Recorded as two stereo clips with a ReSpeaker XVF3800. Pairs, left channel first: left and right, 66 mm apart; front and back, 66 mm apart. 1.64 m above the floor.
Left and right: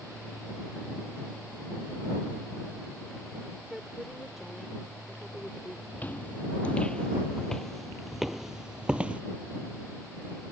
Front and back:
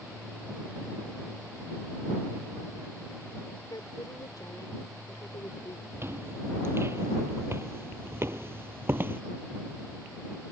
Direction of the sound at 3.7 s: 5° right.